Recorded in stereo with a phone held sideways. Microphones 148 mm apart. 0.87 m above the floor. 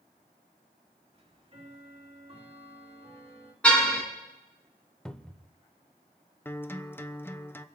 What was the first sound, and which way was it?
Ticking, 40° right (ahead or behind).